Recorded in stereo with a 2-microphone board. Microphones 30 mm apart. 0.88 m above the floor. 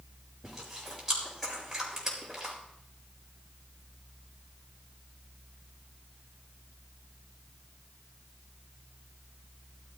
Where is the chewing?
10° right (ahead or behind), 5 m.